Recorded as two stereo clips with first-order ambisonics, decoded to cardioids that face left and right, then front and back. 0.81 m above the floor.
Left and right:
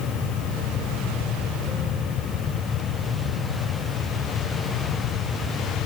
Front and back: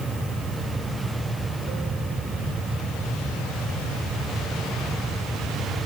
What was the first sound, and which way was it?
Only background noise.